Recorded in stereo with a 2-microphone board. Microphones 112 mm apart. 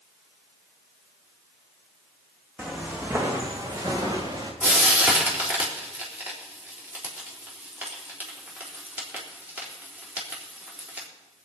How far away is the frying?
About 4 m.